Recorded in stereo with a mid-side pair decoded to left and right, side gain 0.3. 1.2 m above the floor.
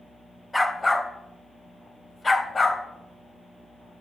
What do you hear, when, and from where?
0.5 s a dog barking: 20° left, 3 m; by 2.8 s 50° left, 3 m